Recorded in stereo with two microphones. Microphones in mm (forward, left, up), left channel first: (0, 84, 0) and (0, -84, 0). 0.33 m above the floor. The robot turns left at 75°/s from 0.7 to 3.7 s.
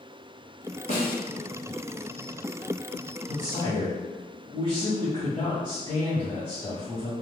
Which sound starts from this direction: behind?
A man speaking, at 3.3 s.